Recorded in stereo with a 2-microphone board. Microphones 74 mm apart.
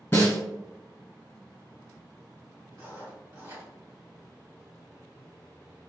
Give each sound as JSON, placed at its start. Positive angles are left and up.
{"t": 0.1, "sound": "a snare drum", "side_deg": 30, "distance_m": 1.3}
{"t": 2.7, "sound": "writing", "side_deg": -40, "distance_m": 1.8}